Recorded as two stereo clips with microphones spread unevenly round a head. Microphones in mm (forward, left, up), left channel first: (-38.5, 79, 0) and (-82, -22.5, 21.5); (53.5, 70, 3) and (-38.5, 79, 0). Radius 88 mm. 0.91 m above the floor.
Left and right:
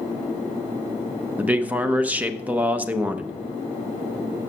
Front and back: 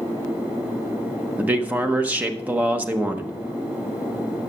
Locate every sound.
1.4 s a man speaking: 160° left, 0.6 m